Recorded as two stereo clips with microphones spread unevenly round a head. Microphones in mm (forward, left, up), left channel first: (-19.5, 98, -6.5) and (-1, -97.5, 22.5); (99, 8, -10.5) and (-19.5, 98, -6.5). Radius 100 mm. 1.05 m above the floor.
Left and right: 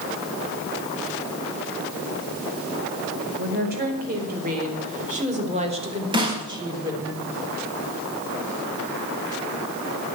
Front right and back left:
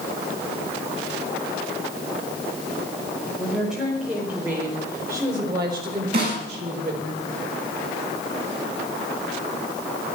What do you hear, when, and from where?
3.4 s a woman speaking: 125° right, 4.5 m; by 7.1 s 160° right, 3.5 m
6.1 s a snare drum: 150° right, 4.5 m